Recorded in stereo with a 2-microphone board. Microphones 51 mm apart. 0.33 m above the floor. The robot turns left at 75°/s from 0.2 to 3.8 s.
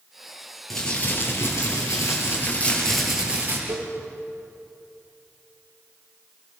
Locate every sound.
0.7 s crumpling: 175° left, 5.5 m; by 3.6 s 45° right, 5.5 m
3.7 s a cowbell: 75° right (ahead or behind), 6 m; by 3.9 s 80° right, 6 m